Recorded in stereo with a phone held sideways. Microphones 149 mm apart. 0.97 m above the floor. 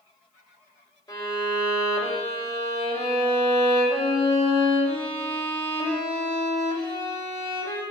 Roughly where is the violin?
Left.